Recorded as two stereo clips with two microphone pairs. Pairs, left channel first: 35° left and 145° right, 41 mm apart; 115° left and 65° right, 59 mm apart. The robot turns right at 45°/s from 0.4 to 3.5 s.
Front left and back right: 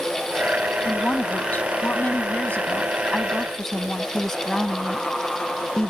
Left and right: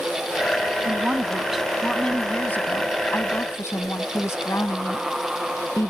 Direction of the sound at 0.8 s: 5° right.